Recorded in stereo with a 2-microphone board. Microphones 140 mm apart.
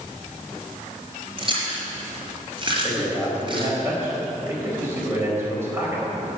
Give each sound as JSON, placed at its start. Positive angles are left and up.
{"t": 1.4, "sound": "chewing", "side_deg": -35, "distance_m": 4.0}
{"t": 2.7, "sound": "a man speaking", "side_deg": -15, "distance_m": 4.5}